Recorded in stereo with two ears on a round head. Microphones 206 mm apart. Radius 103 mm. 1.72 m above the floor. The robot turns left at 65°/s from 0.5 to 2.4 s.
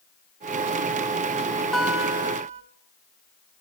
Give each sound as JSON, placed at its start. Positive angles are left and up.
{"t": 1.7, "sound": "a guitar", "azimuth_deg": 0, "distance_m": 1.2}